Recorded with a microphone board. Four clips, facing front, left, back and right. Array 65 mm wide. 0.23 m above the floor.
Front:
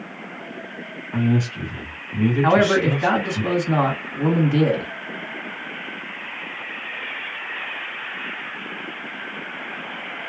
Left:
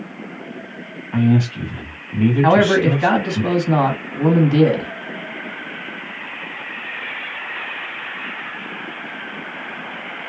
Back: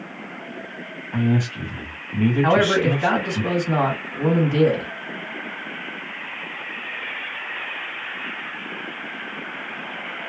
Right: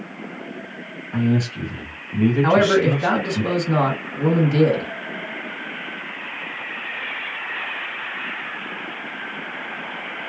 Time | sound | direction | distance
1.1 | a man speaking | 105° left | 1.7 m
2.4 | a man speaking | 90° left | 1.7 m